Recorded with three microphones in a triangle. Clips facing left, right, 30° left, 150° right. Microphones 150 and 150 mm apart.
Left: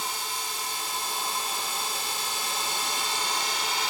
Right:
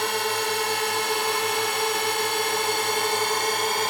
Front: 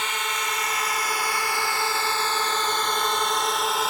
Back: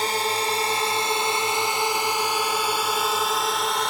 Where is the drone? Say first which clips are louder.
Right 10 dB, back 6 dB; 100° right; by 3.9 s 55° right.